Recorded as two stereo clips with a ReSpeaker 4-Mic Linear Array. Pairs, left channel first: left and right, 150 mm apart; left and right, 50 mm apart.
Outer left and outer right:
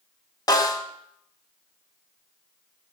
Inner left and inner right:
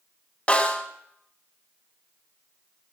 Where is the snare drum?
25° left (ahead or behind), 1.3 m.